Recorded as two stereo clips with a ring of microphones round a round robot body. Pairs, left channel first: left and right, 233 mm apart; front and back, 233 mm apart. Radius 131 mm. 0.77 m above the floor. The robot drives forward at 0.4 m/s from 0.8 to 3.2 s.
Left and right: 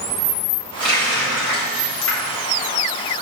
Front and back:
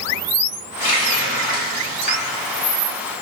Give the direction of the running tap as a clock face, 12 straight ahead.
10 o'clock.